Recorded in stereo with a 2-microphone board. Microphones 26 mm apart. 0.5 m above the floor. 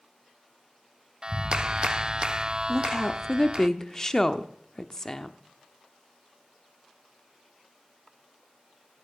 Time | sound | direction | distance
1.2 | a clap | 35° right (ahead or behind) | 0.5 m
2.7 | a woman speaking | 20° left (ahead or behind) | 0.7 m